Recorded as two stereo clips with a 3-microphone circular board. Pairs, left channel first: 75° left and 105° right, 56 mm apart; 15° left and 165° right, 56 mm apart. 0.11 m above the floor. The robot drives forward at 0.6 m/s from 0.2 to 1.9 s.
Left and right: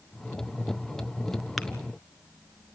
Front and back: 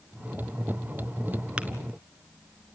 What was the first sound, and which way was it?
Tapping, 160° left.